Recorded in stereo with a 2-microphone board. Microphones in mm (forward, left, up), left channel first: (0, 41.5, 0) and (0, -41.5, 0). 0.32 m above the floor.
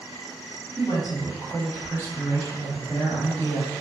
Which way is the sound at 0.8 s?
35° left (ahead or behind).